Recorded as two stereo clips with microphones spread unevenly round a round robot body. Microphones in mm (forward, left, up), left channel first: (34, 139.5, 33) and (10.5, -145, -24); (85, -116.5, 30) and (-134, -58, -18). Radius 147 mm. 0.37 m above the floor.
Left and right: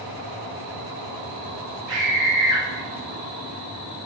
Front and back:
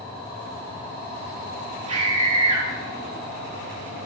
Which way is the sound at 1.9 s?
135° right.